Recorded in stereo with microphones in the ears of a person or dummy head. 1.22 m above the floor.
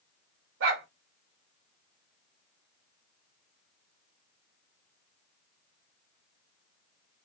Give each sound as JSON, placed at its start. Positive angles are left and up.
{"t": 0.6, "sound": "a dog barking", "side_deg": -70, "distance_m": 2.0}